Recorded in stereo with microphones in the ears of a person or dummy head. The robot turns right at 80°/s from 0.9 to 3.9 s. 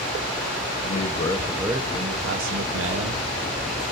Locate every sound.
0.8 s a man speaking: 130° left, 1.2 m; by 3.2 s 45° right, 1.2 m